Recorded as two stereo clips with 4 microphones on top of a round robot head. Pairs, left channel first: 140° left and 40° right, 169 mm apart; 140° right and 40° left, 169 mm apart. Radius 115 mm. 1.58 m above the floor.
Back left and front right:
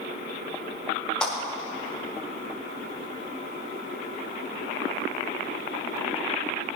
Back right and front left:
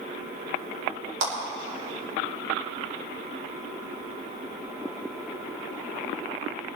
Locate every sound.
1.2 s a clap: 55° left, 4.5 m